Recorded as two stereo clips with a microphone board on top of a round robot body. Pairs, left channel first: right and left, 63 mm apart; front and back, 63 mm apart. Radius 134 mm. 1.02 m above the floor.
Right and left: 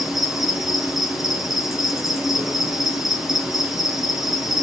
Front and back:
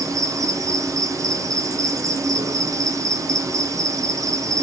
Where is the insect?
175° left, 2 m.